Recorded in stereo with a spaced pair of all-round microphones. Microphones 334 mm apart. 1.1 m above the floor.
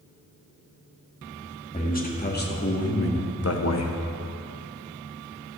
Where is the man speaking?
25° left (ahead or behind), 1.5 m; by 3.9 s 50° left (ahead or behind), 0.7 m.